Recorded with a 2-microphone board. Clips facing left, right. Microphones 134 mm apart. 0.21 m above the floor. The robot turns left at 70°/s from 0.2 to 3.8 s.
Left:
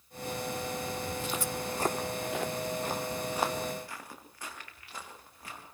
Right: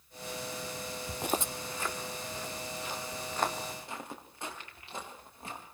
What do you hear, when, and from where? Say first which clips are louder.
1.1 s footsteps: even; 75° right (ahead or behind), 0.6 m; by 5.6 s 25° right (ahead or behind), 6.5 m